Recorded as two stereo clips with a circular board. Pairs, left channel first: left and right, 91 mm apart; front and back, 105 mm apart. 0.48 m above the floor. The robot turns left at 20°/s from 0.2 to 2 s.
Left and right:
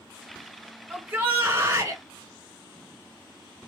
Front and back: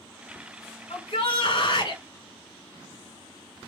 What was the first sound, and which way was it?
A shout, 20° right.